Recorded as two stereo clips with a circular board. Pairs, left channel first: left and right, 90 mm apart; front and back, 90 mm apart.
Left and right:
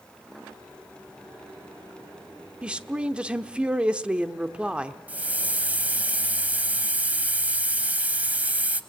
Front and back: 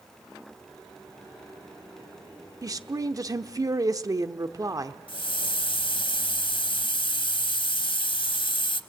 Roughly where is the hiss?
Ahead.